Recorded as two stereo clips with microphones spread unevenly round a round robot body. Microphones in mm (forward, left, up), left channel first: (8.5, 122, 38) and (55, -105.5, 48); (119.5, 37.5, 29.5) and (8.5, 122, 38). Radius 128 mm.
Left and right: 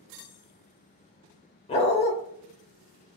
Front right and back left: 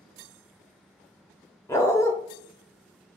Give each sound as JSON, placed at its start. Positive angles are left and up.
{"t": 1.7, "sound": "a dog barking", "azimuth_deg": 35, "distance_m": 0.7}